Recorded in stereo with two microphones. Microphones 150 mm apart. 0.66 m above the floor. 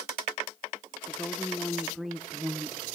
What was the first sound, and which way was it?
A woman speaking, 15° left (ahead or behind).